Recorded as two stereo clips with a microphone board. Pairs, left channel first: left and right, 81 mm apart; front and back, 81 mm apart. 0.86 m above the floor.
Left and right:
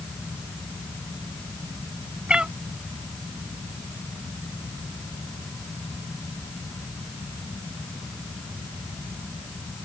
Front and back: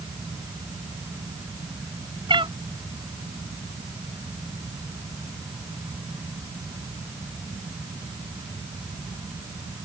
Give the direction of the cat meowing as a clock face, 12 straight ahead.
6 o'clock.